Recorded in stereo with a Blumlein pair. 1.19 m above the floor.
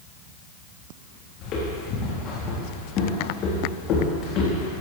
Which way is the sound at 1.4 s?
35° left.